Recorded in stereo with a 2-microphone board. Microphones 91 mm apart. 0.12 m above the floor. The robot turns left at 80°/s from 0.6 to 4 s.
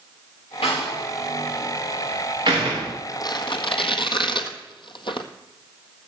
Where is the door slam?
85° left, 8 m; by 2.9 s 85° right, 8 m.